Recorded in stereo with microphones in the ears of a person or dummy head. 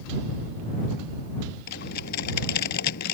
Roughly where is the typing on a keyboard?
Left.